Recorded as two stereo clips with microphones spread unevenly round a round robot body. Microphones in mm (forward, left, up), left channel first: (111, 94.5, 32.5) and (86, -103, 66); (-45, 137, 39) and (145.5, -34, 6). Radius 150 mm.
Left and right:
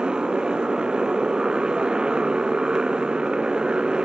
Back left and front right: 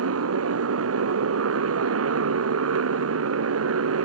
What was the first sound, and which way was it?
A motorcycle, 10° right.